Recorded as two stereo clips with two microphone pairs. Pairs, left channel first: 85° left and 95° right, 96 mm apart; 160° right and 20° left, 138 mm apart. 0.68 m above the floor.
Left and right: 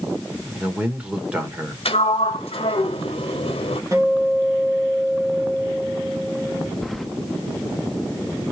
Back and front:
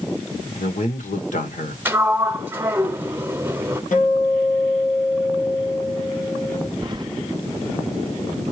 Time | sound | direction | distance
0.6 | a man speaking | 170° right | 2.5 m
1.9 | a sliding door | 95° left | 0.9 m
3.9 | a guitar | 150° right | 3 m
6.8 | keys jangling | 5° right | 0.6 m